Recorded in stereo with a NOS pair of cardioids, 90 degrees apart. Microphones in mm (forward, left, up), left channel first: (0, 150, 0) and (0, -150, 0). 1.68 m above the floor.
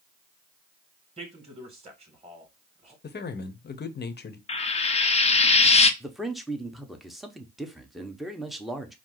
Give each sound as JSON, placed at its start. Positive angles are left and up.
{"t": 1.2, "sound": "a man speaking", "azimuth_deg": -20, "distance_m": 2.5}
{"t": 3.0, "sound": "a man speaking", "azimuth_deg": 35, "distance_m": 0.9}
{"t": 4.5, "sound": "frying", "azimuth_deg": 20, "distance_m": 0.7}
{"t": 6.0, "sound": "a man speaking", "azimuth_deg": 0, "distance_m": 1.0}